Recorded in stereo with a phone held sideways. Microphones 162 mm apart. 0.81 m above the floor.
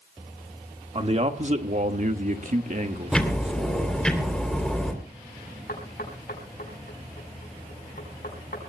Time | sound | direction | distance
0.9 | a man speaking | 40° right (ahead or behind) | 1.6 m
3.1 | ticking | 5° left (ahead or behind) | 3 m
5.7 | knocking | 70° left (ahead or behind) | 5 m